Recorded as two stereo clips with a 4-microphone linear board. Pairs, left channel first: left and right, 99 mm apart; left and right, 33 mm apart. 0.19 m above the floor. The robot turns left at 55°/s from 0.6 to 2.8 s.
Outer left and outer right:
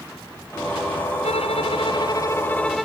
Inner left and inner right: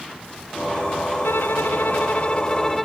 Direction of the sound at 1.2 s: 90° left.